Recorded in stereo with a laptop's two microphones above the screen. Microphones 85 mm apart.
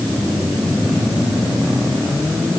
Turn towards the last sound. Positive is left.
No sound to turn to.